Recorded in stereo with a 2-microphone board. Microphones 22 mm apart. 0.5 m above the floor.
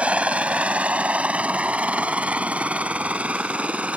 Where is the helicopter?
65° right (ahead or behind); by 4.0 s 70° right (ahead or behind).